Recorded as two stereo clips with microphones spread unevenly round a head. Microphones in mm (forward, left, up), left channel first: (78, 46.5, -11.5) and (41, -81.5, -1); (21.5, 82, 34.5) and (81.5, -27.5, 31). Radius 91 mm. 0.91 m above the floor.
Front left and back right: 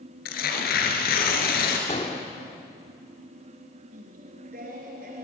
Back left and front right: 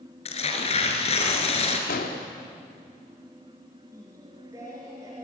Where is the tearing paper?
85° left, 3.5 m.